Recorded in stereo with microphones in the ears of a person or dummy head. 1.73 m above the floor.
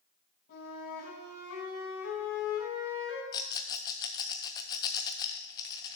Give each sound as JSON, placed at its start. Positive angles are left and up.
{"t": 0.5, "sound": "a flute", "side_deg": 55, "distance_m": 3.0}
{"t": 3.3, "sound": "a rattle", "side_deg": 20, "distance_m": 0.7}